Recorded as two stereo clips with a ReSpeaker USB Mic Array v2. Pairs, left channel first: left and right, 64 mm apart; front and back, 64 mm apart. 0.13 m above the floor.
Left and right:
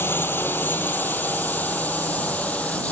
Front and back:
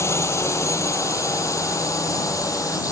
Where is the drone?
40° left; by 2.9 s 25° left.